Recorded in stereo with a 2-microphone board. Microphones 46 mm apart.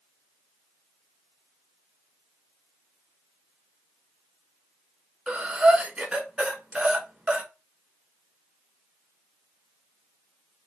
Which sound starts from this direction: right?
Breathing, at 5.3 s.